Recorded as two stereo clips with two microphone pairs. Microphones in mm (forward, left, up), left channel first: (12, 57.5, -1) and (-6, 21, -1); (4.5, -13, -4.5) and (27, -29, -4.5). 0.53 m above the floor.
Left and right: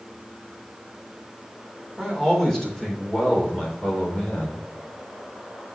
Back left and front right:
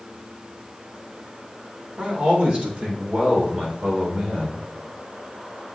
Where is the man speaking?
20° right, 3.5 m; by 4.6 s 5° left, 3.5 m.